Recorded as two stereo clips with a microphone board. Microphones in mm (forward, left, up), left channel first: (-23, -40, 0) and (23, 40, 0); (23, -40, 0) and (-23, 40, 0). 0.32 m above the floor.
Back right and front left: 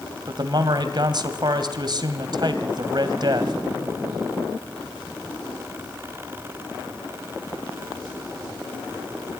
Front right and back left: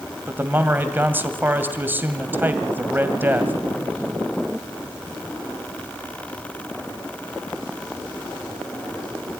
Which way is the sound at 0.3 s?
60° left.